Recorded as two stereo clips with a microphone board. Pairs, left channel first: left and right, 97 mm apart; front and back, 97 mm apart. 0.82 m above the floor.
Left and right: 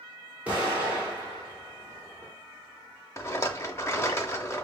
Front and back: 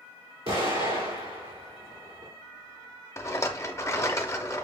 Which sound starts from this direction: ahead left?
A rattle, at 3.2 s.